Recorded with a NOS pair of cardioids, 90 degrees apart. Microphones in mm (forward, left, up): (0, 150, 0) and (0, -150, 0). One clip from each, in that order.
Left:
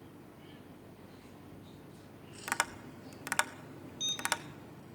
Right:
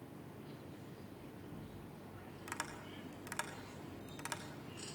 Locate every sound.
2.5 s tapping: 65° left, 1.3 m